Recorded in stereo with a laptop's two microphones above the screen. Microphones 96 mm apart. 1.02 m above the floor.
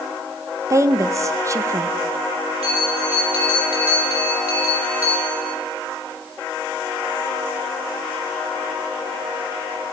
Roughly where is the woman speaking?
Right.